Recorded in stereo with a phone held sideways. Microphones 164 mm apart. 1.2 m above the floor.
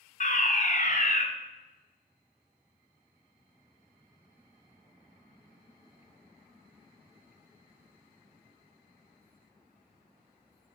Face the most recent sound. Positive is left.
turn(degrees=50)  # may be behind; listen again after turning